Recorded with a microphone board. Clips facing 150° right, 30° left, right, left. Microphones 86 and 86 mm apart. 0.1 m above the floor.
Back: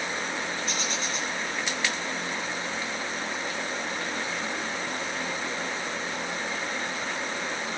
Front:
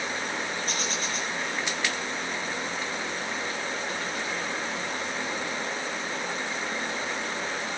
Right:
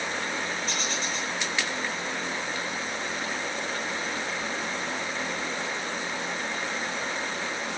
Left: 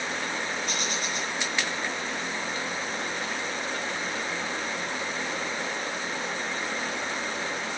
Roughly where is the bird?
Ahead left.